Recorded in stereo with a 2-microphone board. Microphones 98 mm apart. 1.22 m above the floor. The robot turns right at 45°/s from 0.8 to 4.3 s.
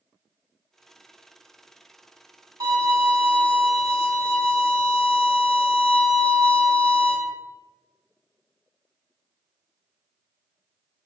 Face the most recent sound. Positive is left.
turn(degrees=-65)